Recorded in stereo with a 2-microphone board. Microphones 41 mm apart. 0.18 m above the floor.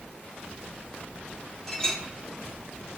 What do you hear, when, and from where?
1.7 s a clink: 10° left (ahead or behind), 3.5 m